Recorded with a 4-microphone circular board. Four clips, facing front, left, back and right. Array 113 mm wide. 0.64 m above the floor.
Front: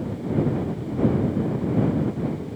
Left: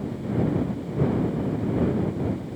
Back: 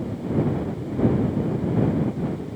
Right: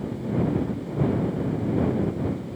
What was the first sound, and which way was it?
Only background noise.